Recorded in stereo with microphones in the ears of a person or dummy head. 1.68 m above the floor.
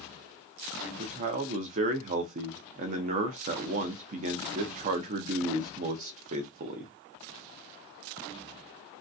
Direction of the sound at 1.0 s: 40° right (ahead or behind).